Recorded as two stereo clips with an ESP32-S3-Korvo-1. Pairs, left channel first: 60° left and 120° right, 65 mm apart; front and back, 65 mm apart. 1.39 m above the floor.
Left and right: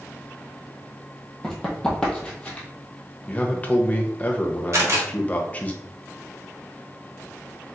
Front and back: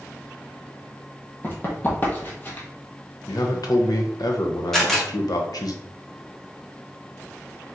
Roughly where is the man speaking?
Ahead.